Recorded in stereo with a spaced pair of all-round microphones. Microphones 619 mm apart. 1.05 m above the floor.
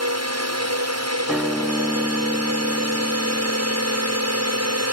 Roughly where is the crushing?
I don't hear crushing.